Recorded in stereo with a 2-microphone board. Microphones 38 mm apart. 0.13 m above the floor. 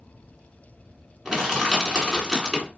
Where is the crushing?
15° right (ahead or behind), 1.8 m.